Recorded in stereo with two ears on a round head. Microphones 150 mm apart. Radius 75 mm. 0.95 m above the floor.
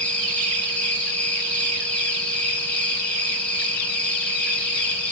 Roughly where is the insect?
Centre.